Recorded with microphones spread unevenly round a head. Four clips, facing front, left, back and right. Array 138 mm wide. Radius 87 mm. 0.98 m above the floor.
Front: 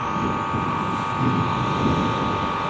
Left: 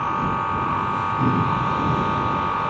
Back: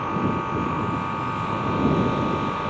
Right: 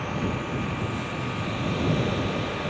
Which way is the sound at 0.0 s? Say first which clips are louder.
Left 7 dB, front 1 dB; 65° left.